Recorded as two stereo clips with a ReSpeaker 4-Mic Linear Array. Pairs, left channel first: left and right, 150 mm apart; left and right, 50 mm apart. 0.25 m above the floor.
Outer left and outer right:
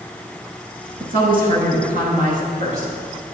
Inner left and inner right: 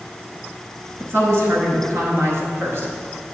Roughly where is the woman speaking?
Right.